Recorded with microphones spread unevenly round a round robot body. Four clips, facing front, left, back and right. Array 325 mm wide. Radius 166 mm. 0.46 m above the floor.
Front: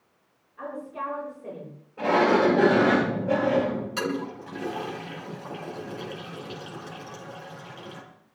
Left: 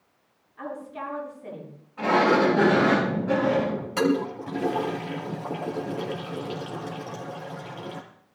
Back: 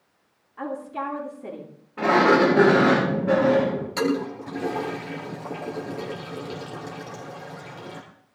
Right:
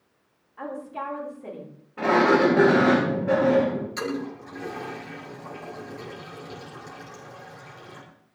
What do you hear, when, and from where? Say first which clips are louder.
0.6 s a woman speaking: right 2 dB, back 4 dB; 175° right, 10 m
2.0 s a sliding door: right 1 dB, back 3 dB; 145° right, 9 m
4.0 s a toilet flushing: left 7 dB, back 5 dB; 115° left, 4 m